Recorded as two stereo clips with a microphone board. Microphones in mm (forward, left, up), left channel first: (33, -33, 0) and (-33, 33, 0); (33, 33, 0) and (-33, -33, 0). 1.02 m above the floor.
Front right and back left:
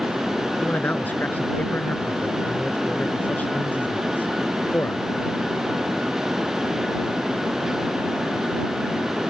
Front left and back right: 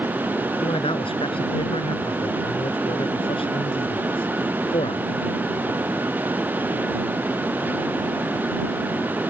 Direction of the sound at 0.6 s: 25° left.